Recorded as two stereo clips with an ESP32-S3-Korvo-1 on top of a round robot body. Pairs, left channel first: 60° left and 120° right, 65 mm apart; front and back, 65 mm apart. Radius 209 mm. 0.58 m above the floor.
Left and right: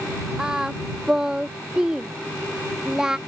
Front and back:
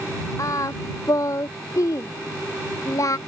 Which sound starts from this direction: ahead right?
Singing, at 0.4 s.